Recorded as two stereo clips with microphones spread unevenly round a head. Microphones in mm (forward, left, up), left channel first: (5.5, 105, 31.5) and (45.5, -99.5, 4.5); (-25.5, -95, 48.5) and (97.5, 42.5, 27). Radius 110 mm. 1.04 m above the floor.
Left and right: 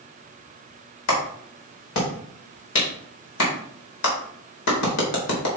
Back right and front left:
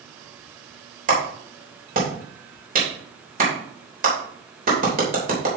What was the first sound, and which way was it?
A clap, 100° left.